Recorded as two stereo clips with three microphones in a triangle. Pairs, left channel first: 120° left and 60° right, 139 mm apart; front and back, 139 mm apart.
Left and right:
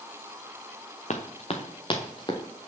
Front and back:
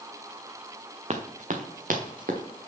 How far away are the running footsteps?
About 1.5 m.